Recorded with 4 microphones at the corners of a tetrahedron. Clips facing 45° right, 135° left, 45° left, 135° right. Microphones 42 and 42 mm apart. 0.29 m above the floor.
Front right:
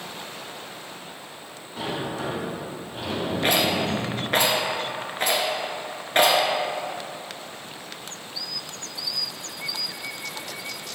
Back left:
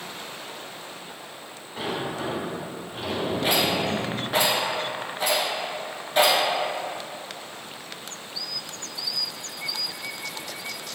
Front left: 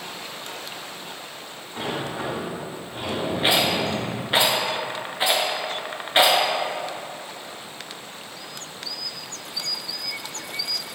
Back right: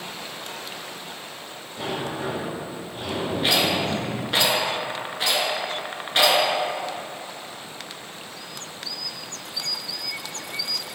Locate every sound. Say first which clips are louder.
1.8 s a sliding door: even, even; 45° left, 1.3 m
3.4 s a rattle: front right 2 dB, front left 1 dB; 20° right, 0.8 m